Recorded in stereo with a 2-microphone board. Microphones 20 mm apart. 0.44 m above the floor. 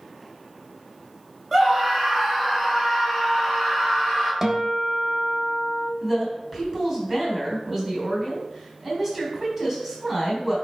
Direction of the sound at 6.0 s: 10° right (ahead or behind).